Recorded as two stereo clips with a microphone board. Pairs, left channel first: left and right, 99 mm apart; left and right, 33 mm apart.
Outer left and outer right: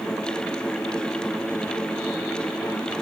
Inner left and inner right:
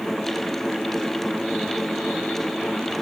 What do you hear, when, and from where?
Only background noise.